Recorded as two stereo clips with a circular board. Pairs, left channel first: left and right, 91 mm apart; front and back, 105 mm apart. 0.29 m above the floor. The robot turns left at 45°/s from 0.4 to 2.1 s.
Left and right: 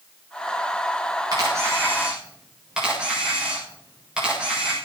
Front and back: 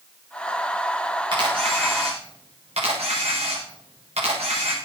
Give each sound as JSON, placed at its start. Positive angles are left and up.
{"t": 1.3, "sound": "a camera shutter", "azimuth_deg": -135, "distance_m": 7.5}